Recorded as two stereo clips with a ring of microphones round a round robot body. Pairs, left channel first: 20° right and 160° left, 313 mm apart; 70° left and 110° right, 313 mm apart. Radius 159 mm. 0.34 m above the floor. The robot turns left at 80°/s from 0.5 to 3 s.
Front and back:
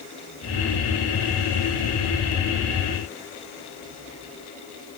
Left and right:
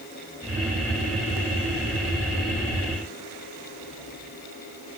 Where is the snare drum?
No snare drum in this recording.